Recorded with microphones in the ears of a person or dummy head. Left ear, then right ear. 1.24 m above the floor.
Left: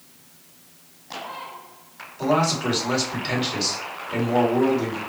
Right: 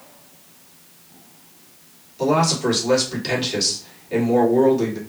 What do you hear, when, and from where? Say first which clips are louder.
2.2 s a man speaking: right 2 dB; 20° right (ahead or behind), 2.5 m